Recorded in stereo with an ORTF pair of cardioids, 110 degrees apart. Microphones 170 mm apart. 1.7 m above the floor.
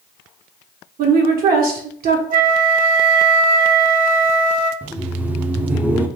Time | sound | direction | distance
1.0 | a woman speaking | 60° right | 1.4 m
2.3 | a flute | 55° right | 0.6 m
4.8 | laughter | 10° right | 0.6 m